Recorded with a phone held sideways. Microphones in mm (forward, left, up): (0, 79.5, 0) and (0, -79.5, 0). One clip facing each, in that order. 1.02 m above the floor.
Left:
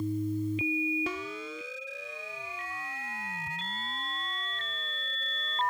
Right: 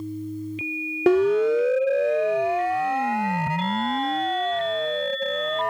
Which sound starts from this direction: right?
A siren, at 1.1 s.